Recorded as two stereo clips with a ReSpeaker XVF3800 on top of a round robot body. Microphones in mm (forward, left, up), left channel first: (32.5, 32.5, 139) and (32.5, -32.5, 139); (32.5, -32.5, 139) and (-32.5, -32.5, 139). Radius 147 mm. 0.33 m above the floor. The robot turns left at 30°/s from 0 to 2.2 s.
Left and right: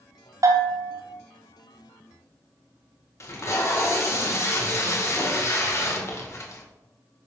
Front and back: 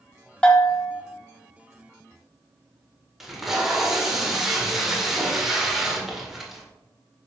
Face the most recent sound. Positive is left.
turn(degrees=95)